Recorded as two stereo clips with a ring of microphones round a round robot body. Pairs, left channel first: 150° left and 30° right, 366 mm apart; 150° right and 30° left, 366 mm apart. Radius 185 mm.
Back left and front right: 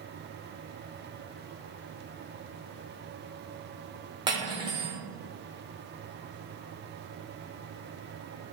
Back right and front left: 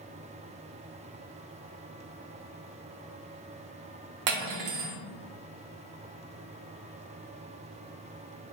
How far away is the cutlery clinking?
About 0.7 m.